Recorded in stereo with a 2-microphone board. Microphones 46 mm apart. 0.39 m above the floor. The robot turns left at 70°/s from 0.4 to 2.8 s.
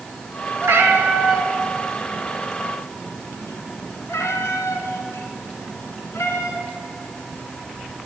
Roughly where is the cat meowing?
Right.